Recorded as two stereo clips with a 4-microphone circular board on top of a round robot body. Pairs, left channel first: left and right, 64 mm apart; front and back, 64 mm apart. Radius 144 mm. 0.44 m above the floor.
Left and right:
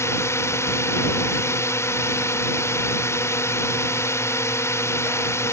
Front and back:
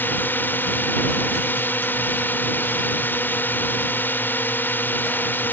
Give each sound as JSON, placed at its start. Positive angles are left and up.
{"t": 0.0, "sound": "a drone", "azimuth_deg": 55}